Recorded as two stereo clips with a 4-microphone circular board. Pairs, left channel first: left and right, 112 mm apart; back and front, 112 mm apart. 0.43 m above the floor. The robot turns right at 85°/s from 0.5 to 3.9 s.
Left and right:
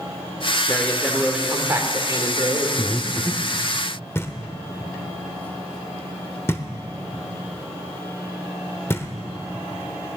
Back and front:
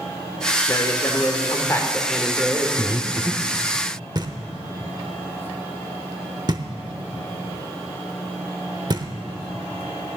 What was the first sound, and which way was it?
A man speaking, 140° left.